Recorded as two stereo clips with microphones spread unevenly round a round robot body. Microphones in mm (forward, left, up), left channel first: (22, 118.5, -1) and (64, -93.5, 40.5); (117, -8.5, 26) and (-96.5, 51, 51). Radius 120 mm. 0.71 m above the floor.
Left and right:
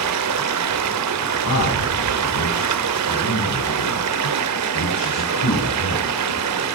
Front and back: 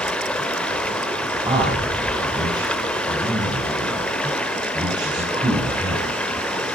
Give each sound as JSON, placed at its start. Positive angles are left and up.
{"t": 0.0, "sound": "running water", "azimuth_deg": -100, "distance_m": 1.4}
{"t": 1.4, "sound": "a man speaking", "azimuth_deg": 95, "distance_m": 6.5}